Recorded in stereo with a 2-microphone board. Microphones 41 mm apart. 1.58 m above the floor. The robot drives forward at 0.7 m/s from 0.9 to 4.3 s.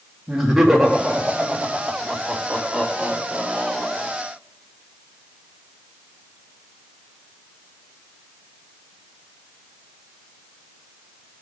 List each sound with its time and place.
0.3 s laughter: 10° right (ahead or behind), 3.5 m; by 4.1 s 5° right (ahead or behind), 6 m